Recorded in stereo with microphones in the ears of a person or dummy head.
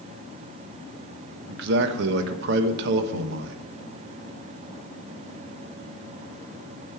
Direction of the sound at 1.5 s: 60° right (ahead or behind).